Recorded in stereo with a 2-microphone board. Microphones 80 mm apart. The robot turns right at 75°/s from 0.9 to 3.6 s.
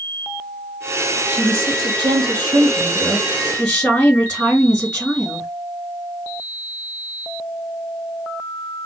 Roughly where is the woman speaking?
Behind.